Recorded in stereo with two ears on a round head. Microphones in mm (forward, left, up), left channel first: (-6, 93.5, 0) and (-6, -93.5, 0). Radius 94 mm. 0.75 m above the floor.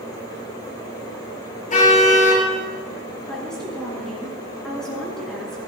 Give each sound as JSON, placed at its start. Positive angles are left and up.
{"t": 1.7, "sound": "a car horn", "side_deg": 40, "distance_m": 5.5}
{"t": 3.3, "sound": "a woman speaking", "side_deg": 5, "distance_m": 8.0}